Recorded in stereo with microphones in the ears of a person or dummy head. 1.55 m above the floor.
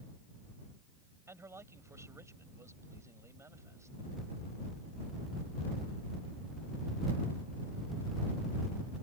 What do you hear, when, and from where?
1.3 s a man speaking: 15° right (ahead or behind)